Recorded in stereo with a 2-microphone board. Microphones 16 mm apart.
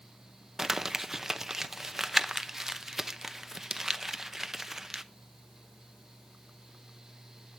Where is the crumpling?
25° right (ahead or behind), 0.7 m.